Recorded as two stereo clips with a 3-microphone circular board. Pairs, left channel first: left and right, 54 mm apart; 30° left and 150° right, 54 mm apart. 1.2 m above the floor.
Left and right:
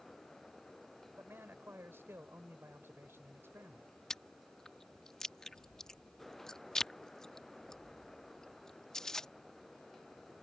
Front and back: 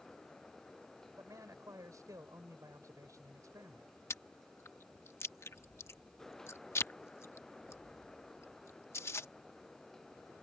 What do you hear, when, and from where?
1.2 s a man speaking: 135° right
4.1 s chewing: 15° left